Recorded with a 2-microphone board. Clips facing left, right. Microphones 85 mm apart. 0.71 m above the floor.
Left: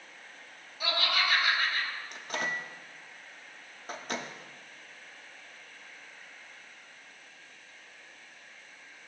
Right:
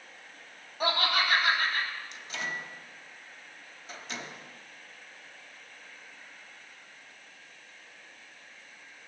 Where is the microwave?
50° left (ahead or behind), 1.0 m.